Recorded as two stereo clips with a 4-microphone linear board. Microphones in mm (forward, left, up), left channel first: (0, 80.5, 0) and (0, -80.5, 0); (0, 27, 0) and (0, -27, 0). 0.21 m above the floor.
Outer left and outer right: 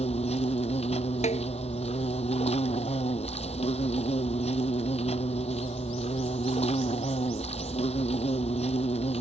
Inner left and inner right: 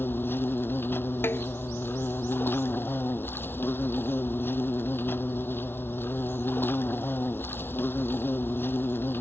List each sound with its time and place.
0.0 s an insect: 40° left (ahead or behind)
1.2 s a snare drum: 45° left (ahead or behind)